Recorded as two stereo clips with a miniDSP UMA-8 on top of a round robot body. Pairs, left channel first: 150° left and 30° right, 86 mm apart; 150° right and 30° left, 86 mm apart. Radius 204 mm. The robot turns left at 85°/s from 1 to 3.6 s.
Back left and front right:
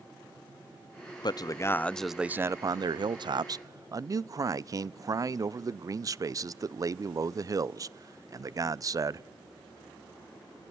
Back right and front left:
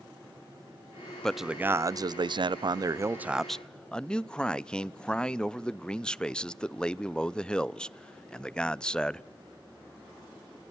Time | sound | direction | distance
1.2 | a man speaking | 130° left | 0.6 m